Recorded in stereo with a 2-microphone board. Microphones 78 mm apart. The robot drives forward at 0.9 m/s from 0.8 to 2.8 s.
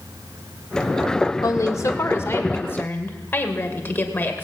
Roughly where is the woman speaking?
Left.